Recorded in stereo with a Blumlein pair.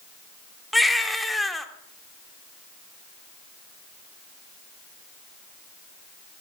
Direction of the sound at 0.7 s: 5° left.